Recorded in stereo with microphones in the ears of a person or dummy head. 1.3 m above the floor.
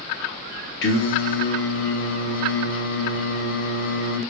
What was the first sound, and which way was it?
Singing, 60° left (ahead or behind).